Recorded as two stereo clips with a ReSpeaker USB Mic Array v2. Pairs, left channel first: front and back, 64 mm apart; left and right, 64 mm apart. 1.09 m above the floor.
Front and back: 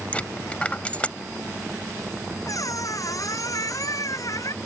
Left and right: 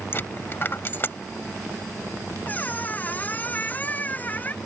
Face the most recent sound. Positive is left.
turn(degrees=25)